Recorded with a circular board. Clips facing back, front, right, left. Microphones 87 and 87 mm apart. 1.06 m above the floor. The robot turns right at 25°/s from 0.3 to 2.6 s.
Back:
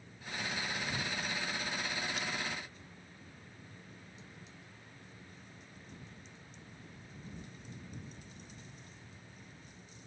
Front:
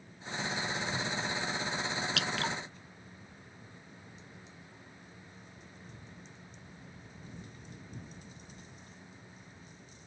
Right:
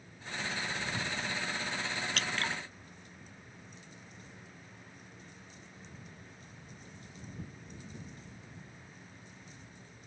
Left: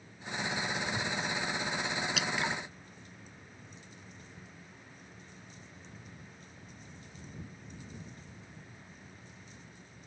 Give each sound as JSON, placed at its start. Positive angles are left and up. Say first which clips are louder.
{"t": 2.2, "sound": "dripping", "louder": "front 5 dB, left 1 dB", "azimuth_deg": 5}